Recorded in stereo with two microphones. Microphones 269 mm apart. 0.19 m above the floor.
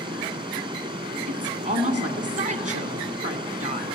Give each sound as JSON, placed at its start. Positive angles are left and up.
{"t": 0.0, "sound": "running water", "side_deg": -20, "distance_m": 1.4}
{"t": 1.3, "sound": "a woman speaking", "side_deg": -30, "distance_m": 2.0}